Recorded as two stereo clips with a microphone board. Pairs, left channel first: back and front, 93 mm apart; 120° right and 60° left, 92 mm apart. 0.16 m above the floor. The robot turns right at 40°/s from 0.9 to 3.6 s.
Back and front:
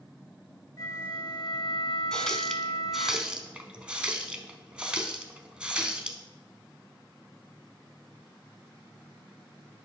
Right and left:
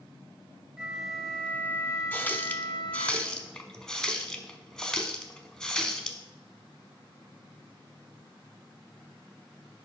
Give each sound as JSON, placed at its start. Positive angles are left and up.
{"t": 0.8, "sound": "a flute", "azimuth_deg": 140, "distance_m": 0.8}
{"t": 2.1, "sound": "a running tap", "azimuth_deg": -115, "distance_m": 0.8}